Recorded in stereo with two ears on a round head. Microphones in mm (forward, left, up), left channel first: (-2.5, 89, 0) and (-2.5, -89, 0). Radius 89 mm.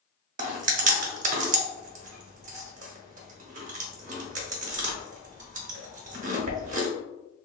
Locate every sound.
0.4 s chewing: 40° right (ahead or behind), 0.7 m